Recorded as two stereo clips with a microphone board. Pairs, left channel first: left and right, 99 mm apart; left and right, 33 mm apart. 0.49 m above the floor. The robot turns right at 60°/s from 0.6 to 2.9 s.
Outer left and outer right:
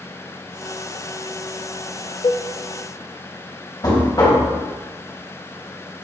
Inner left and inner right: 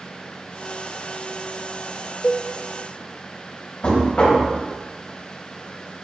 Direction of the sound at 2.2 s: 70° left (ahead or behind).